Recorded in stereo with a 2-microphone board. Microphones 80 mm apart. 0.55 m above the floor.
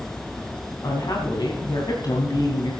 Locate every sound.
0.8 s a woman speaking: 55° left (ahead or behind), 3.5 m